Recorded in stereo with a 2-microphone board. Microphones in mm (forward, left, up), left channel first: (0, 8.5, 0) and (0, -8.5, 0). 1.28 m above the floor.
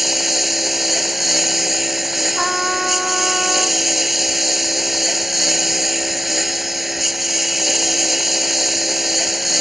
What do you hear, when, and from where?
0.0 s a lawn mower: 10° right (ahead or behind)
2.4 s a trumpet: 15° right (ahead or behind)